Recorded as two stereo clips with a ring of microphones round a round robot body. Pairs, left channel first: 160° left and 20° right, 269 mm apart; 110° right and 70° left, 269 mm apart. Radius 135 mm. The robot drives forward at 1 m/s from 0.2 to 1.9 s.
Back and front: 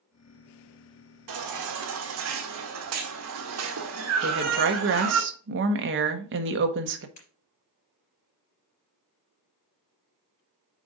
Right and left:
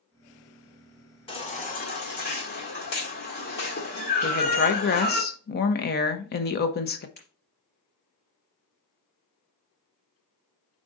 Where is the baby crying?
40° right, 1.9 m; by 5.2 s 55° right, 1.5 m.